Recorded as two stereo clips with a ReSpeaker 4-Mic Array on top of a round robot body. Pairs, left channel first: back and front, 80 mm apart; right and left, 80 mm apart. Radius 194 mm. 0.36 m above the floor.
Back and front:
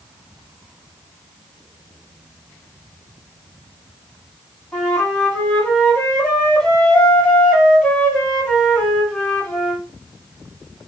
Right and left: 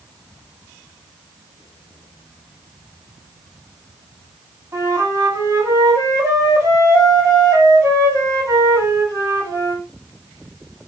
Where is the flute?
100° left, 1.7 m.